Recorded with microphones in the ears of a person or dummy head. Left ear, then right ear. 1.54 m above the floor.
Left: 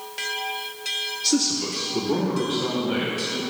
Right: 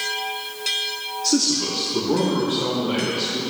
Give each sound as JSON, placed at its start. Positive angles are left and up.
{"t": 1.2, "sound": "a man speaking", "side_deg": 15, "distance_m": 0.6}